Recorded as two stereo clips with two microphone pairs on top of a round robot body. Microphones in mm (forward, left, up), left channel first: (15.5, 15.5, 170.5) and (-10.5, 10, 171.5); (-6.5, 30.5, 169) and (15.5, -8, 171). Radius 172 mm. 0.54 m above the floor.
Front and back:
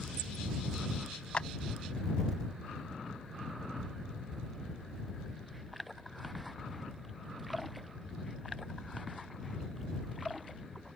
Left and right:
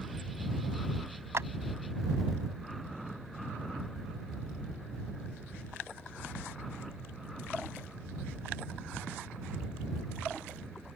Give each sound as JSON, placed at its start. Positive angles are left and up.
{"t": 1.3, "sound": "a clap", "azimuth_deg": -40}